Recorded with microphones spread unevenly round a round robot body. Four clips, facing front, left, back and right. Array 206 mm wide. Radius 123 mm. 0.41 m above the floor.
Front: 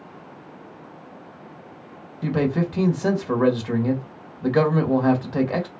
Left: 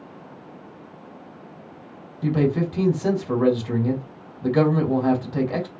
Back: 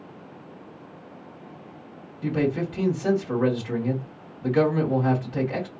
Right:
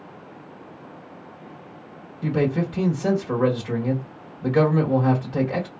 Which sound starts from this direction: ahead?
A man speaking, at 2.2 s.